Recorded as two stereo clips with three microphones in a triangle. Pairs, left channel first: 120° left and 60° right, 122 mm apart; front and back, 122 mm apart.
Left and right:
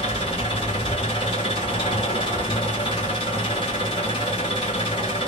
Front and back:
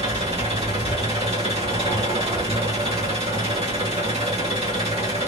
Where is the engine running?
160° left, 1.4 m.